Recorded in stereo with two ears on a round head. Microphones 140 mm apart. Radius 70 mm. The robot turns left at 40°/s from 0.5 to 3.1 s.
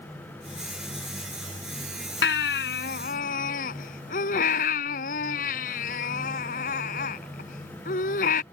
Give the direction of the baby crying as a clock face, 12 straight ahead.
9 o'clock.